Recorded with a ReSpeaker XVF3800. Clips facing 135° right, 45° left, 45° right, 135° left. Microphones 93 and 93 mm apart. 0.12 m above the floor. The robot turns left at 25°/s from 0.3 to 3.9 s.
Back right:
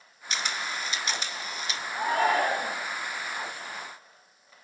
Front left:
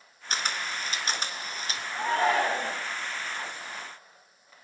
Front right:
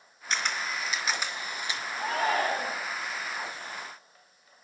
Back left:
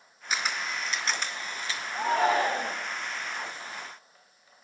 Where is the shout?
155° left, 7 m; by 2.8 s 135° left, 7 m.